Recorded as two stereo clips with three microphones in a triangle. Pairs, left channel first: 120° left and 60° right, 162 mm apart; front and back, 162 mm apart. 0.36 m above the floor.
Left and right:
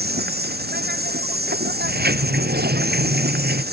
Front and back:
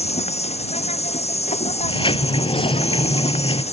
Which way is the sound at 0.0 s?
50° right.